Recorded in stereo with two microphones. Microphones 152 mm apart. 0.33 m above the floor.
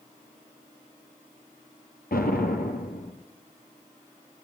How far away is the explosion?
About 3 m.